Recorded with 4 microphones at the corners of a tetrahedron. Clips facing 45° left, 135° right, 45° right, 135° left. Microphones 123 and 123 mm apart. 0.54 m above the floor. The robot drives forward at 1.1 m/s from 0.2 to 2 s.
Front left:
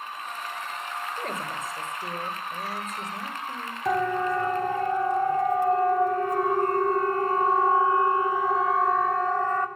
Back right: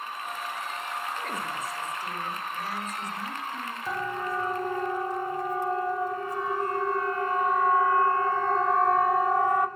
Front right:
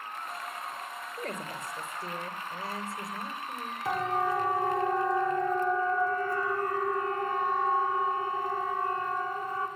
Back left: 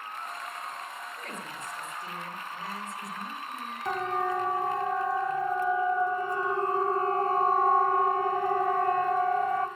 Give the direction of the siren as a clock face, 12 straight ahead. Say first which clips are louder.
Front left 8 dB, even; 11 o'clock.